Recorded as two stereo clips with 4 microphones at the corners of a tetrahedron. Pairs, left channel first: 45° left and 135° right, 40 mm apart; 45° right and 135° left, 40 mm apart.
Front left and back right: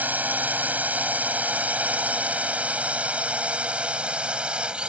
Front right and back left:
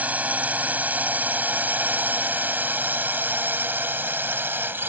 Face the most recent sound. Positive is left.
turn(degrees=160)